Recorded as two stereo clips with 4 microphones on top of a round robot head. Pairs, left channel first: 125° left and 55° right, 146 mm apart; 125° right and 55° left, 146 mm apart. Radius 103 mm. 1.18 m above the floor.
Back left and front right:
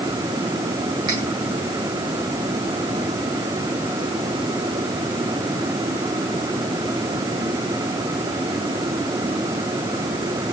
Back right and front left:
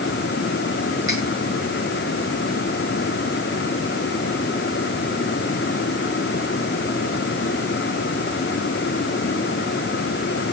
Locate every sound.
1.1 s cutlery clinking: 10° left, 8.5 m